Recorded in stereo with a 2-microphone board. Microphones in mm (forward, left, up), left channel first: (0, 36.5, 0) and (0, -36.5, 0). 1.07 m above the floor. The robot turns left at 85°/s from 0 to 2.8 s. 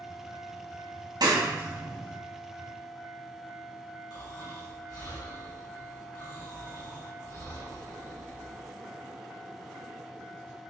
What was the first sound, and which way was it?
A clap, 65° right (ahead or behind).